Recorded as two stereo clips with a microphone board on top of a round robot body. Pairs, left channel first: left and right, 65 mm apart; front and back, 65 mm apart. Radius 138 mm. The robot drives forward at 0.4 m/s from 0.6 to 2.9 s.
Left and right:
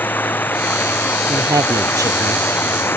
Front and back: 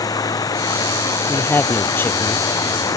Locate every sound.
0.0 s running water: 30° left; by 3.0 s 35° left
1.3 s a woman speaking: 60° right